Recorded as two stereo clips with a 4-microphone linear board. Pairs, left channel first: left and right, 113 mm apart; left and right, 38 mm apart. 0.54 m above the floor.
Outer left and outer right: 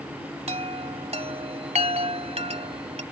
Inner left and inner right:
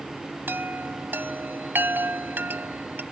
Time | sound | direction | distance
0.5 | a chime | 75° right (ahead or behind) | ?